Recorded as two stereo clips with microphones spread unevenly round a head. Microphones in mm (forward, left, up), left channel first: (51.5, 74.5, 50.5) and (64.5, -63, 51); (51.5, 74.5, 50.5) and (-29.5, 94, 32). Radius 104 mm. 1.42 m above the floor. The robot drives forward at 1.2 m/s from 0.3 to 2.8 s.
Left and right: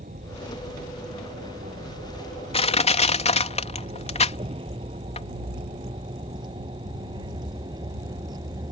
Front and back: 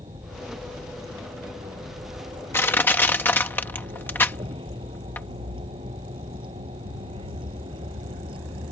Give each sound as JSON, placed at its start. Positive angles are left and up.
{"t": 0.0, "sound": "a vehicle", "azimuth_deg": -135}
{"t": 2.5, "sound": "crushing", "azimuth_deg": 50}